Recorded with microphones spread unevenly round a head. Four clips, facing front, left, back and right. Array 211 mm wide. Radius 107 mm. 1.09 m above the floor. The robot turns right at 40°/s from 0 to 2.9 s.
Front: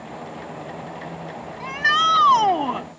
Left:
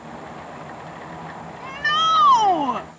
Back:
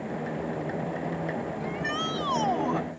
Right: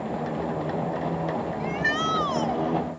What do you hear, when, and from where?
1.6 s a shout: 15° left; by 2.9 s 65° left